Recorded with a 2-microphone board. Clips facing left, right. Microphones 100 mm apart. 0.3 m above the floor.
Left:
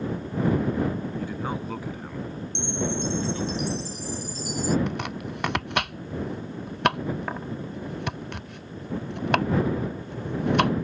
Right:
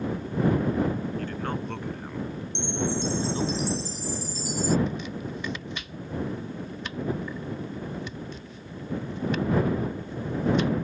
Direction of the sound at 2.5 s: 55° left (ahead or behind).